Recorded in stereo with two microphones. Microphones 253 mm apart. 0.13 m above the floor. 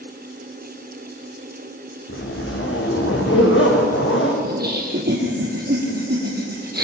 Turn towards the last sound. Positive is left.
turn(degrees=-40)  # may be behind; listen again after turning